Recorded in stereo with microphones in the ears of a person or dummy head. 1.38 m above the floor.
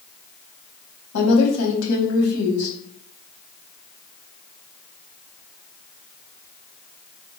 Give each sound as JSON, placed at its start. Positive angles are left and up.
{"t": 1.1, "sound": "a woman speaking", "side_deg": 70, "distance_m": 1.2}